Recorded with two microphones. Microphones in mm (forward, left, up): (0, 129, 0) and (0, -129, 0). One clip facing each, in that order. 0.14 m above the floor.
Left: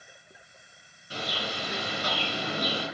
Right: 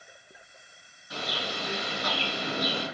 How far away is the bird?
About 2 m.